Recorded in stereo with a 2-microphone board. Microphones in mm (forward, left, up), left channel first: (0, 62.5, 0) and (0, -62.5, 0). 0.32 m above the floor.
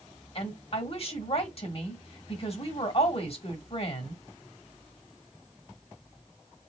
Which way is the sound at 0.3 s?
45° left (ahead or behind).